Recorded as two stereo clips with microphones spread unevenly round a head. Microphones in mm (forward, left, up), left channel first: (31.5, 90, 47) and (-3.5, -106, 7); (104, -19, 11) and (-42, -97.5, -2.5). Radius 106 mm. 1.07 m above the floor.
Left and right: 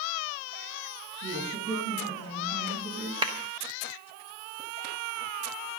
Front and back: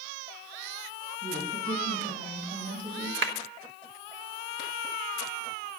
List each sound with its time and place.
1.2 s a woman speaking: 110° right, 7.5 m
3.2 s a clap: 165° right, 1.2 m